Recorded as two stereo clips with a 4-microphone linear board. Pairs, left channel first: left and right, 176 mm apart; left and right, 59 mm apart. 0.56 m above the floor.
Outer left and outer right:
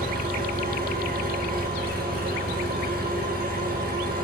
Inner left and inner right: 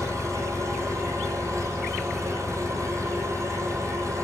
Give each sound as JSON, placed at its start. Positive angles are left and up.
{"t": 0.0, "sound": "an engine running", "side_deg": -60, "distance_m": 6.5}